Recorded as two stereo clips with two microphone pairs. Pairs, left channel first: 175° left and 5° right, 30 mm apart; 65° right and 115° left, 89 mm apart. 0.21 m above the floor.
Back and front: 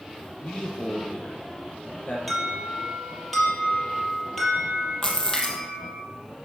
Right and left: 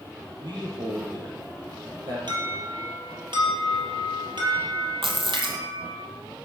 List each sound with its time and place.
0.4 s a man speaking: 150° left, 6 m
2.3 s an alarm: 95° left, 5.5 m
5.0 s a splash: 105° left, 2.5 m